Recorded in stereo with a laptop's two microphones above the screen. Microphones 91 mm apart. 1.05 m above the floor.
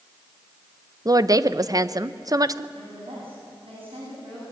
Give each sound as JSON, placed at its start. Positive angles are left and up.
{"t": 1.1, "sound": "a woman speaking", "side_deg": -40, "distance_m": 0.5}
{"t": 2.8, "sound": "a woman speaking", "side_deg": -85, "distance_m": 8.0}